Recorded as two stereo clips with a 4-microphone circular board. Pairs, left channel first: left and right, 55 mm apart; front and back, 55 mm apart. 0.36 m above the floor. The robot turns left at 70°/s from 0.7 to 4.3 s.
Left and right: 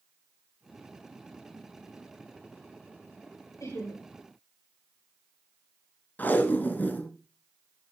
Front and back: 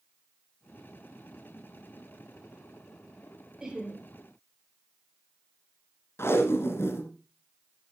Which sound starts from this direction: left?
Laughter, at 3.6 s.